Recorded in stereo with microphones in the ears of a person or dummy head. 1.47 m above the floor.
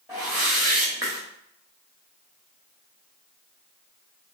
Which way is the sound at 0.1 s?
10° right (ahead or behind).